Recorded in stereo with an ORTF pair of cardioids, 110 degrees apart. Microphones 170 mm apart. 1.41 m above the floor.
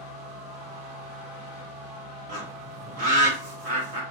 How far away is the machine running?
About 1.2 m.